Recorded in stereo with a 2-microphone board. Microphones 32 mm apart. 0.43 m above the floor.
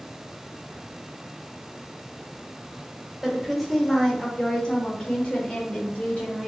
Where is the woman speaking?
Centre (ahead or behind), 1.3 m; by 6.5 s 50° left (ahead or behind), 1.5 m.